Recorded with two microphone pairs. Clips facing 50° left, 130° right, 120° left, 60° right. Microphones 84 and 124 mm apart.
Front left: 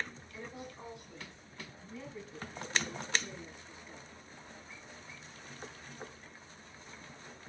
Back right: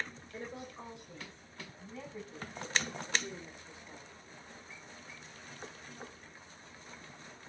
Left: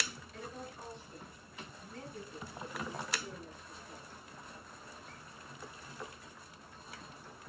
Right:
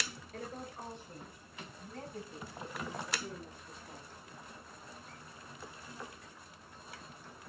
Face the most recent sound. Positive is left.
turn(degrees=-70)